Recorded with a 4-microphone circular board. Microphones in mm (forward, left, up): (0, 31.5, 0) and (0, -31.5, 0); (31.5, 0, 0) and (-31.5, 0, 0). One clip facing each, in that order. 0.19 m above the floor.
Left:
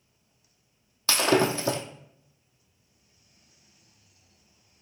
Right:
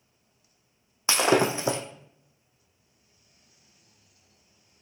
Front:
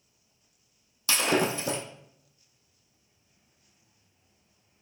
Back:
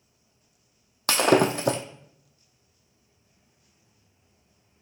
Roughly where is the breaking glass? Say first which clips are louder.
Right 1 dB, back 6 dB; behind.